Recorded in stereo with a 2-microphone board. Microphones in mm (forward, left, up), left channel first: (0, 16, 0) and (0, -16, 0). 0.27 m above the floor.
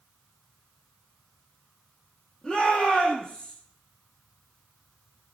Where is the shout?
15° left (ahead or behind), 7.5 m.